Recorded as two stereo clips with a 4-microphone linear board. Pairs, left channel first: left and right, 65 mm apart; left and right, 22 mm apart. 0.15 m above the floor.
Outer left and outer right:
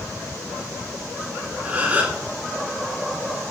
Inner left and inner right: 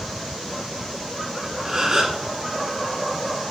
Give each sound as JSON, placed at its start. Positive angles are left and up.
{"t": 1.6, "sound": "a gasp", "side_deg": -20, "distance_m": 1.2}